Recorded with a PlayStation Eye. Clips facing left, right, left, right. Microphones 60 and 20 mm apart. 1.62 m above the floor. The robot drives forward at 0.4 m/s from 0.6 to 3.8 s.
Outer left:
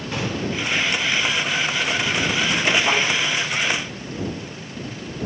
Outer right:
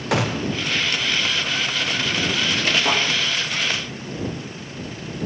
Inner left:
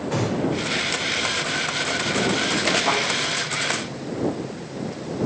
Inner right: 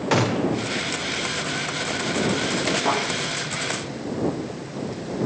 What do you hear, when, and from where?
0.1 s a gunshot: 75° right (ahead or behind), 0.6 m
2.9 s a thud: 45° right (ahead or behind), 3.5 m